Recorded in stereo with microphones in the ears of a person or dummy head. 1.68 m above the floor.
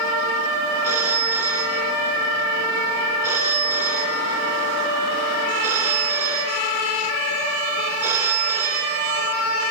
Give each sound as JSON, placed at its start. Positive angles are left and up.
{"t": 0.8, "sound": "a phone ringing", "side_deg": -10, "distance_m": 2.0}